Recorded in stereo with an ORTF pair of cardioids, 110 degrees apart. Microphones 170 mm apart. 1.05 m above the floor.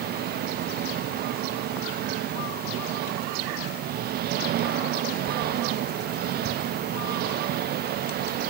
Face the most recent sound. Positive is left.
turn(degrees=-65)